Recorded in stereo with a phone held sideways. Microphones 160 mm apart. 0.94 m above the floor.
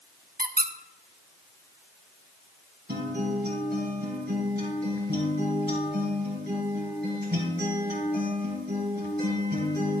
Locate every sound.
0.4 s a squeak: 70° right (ahead or behind), 0.7 m
2.9 s a guitar: 80° right, 3.5 m